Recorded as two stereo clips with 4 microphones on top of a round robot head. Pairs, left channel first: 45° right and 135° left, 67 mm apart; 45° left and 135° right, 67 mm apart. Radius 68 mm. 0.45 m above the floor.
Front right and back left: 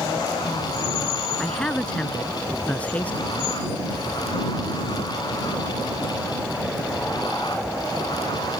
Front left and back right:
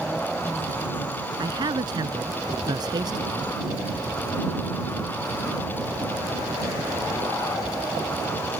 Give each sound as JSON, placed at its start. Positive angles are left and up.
{"t": 1.4, "sound": "a man speaking", "azimuth_deg": -120}